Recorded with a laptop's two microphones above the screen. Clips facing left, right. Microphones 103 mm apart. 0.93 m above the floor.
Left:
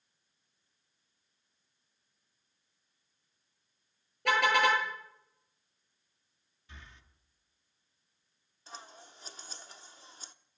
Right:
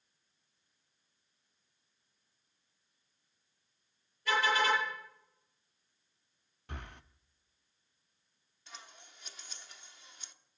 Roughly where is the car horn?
Left.